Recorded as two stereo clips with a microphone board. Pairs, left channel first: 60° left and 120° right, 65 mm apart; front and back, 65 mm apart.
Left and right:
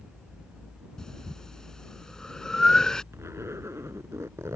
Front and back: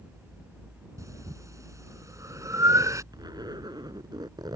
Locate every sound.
1.0 s breathing: 140° left
3.1 s a zipper: 170° right